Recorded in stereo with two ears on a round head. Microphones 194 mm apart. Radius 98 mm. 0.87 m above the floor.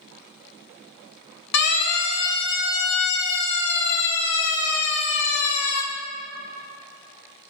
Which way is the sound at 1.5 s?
80° left.